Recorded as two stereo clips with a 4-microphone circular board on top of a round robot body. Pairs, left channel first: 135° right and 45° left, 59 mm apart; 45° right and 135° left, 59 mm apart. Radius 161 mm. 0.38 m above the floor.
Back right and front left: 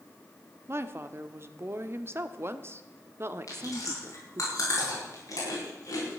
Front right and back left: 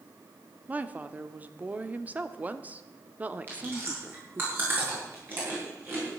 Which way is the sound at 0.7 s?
80° left.